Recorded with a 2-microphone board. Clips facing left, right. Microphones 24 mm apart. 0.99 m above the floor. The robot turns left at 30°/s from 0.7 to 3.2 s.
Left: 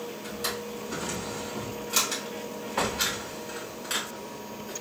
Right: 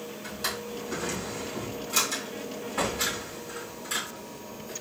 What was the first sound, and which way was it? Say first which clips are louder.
A drawer: right 1 dB; 5° right (ahead or behind).